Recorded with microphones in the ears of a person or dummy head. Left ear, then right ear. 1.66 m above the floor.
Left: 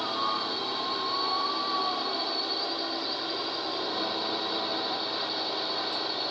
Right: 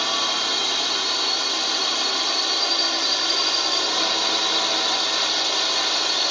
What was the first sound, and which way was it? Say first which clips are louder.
A drone: right 7 dB; 70° right (ahead or behind).